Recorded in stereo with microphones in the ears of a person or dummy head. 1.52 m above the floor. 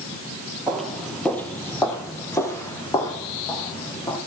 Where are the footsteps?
Centre (ahead or behind), 2 m; by 4.2 s 25° left (ahead or behind), 6 m.